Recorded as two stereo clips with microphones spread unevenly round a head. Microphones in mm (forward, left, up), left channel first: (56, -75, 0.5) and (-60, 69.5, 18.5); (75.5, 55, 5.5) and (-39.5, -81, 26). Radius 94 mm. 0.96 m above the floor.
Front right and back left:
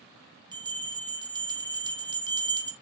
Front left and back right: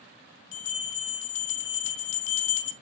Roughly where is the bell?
Ahead left.